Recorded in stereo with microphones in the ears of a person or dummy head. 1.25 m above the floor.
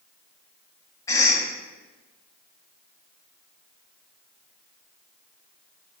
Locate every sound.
1.1 s a cough: 20° left (ahead or behind), 1.1 m